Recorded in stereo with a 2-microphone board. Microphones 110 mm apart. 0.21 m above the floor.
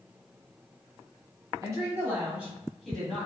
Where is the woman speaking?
30° right (ahead or behind), 1.3 m; by 3.3 s 10° left (ahead or behind), 1.4 m.